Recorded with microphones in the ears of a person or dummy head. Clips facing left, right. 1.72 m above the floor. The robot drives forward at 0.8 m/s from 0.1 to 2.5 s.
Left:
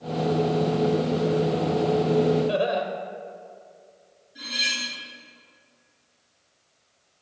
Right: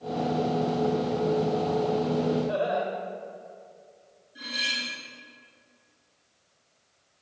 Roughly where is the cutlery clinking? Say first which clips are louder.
Left 1 dB; centre.